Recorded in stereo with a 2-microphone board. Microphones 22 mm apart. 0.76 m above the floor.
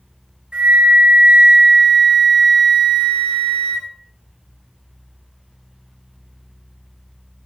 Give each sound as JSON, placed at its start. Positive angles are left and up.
{"t": 0.5, "sound": "a flute", "side_deg": -75, "distance_m": 1.6}